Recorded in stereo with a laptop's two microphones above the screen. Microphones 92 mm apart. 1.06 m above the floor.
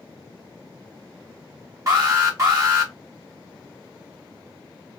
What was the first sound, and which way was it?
An alarm, 35° right (ahead or behind).